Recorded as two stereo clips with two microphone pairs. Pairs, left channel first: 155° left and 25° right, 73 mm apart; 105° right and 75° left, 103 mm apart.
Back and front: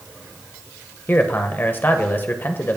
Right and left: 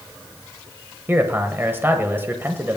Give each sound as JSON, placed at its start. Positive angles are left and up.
{"t": 1.1, "sound": "a man speaking", "azimuth_deg": 125, "distance_m": 1.0}